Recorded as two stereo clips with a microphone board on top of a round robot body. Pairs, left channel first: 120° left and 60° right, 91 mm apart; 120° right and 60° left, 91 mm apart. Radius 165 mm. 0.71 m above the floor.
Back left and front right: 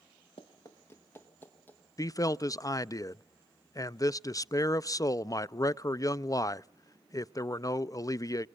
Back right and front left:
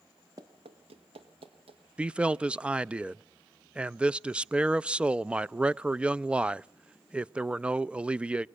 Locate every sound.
0.4 s running footsteps: 110° left, 0.7 m; by 1.8 s 50° left, 2.5 m
2.0 s a man speaking: 130° left, 0.6 m